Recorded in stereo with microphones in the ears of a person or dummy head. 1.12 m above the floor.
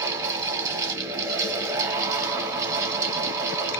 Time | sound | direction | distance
0.0 | a fan | 20° right (ahead or behind) | 0.8 m